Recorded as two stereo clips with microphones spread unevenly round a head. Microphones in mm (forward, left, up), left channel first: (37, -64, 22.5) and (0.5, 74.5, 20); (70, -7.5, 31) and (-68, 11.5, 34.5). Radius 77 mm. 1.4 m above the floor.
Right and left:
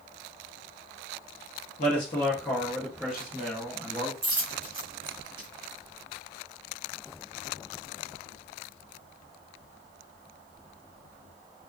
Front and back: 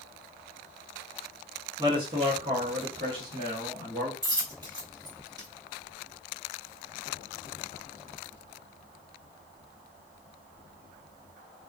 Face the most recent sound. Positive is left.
turn(degrees=135)